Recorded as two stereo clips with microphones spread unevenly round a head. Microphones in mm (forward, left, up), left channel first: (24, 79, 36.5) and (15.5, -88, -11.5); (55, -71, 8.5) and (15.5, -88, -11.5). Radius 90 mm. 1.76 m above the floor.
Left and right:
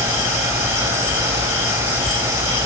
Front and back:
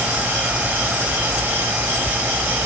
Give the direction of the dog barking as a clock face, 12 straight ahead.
No dog barking in this recording.